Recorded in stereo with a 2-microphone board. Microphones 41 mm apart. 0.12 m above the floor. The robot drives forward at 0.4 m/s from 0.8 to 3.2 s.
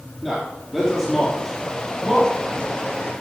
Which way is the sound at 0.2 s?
Centre (ahead or behind).